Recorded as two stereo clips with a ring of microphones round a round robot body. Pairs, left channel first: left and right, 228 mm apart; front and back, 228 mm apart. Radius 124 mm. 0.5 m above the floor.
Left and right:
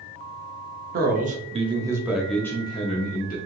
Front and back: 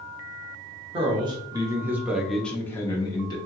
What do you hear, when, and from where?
0.9 s a man speaking: 120° right, 0.9 m; by 3.4 s 60° left, 0.9 m